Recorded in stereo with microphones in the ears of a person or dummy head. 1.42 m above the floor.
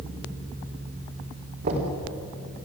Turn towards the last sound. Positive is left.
turn(degrees=-50)  # may be behind; listen again after turning